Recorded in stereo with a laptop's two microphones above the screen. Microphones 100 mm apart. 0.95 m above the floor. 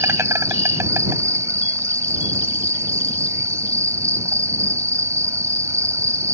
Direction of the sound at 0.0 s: 30° right (ahead or behind).